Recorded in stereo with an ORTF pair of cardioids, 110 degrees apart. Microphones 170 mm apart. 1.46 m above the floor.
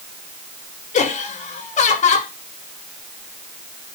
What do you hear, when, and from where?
0.9 s laughter: 45° left, 7 m